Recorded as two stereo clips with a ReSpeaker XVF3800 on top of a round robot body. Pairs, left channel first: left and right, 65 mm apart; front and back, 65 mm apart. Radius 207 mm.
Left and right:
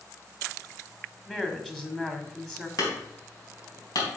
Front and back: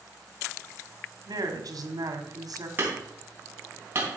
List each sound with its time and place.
1.3 s a woman speaking: 170° left, 2.5 m
2.8 s hammering: 120° left, 3.5 m